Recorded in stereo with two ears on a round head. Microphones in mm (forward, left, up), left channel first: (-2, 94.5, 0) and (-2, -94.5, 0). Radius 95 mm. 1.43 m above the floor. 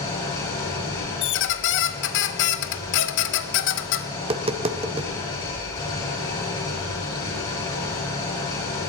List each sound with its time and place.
0.0 s an engine running: 25° left (ahead or behind), 7 m
1.2 s a squeak: 60° left (ahead or behind), 0.8 m
4.2 s tapping: 30° right (ahead or behind), 0.9 m